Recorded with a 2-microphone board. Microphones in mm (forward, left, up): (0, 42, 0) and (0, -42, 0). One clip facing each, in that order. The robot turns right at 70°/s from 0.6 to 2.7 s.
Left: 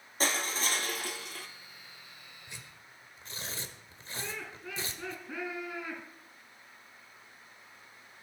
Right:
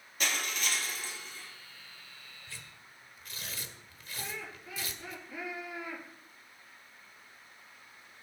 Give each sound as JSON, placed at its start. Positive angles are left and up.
{"t": 0.2, "sound": "crushing", "azimuth_deg": 35, "distance_m": 2.0}
{"t": 2.5, "sound": "tearing paper", "side_deg": 15, "distance_m": 1.5}
{"t": 4.2, "sound": "laughter", "side_deg": 80, "distance_m": 7.0}